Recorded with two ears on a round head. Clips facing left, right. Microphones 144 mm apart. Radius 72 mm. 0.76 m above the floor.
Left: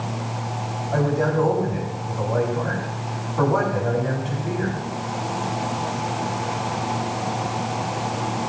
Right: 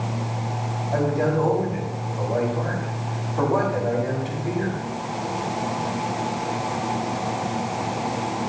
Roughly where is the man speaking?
Centre.